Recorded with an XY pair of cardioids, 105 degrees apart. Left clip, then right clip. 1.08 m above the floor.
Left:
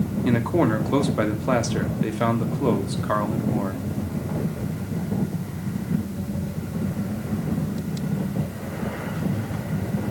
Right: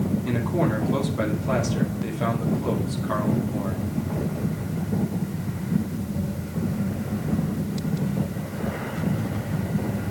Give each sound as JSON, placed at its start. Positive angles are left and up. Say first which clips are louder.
{"t": 0.2, "sound": "a man speaking", "louder": "left 5 dB", "azimuth_deg": 50, "distance_m": 2.5}